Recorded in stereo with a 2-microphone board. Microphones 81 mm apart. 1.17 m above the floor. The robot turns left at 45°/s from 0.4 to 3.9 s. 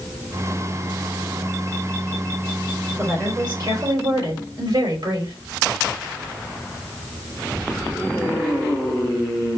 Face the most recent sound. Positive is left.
turn(degrees=-75)